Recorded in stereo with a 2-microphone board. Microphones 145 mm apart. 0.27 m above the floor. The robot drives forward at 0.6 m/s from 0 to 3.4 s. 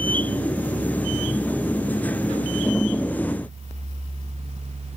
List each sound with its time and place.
Only background noise.